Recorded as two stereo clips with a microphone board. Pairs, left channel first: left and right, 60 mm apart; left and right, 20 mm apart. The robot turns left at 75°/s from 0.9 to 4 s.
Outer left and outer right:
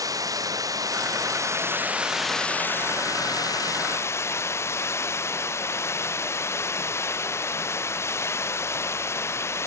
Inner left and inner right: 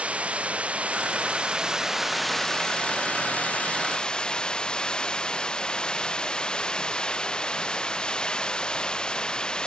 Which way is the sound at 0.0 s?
80° right.